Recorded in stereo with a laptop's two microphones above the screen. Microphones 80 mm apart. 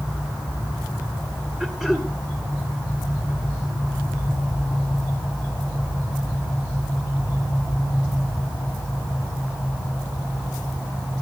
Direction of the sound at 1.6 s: 5° right (ahead or behind).